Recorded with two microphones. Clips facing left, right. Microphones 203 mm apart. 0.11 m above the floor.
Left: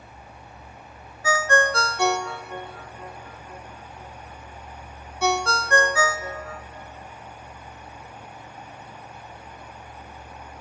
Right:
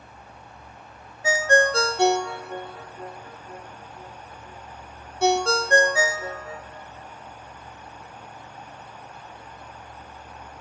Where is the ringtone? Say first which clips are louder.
Right 2 dB; 30° right (ahead or behind), 0.5 m.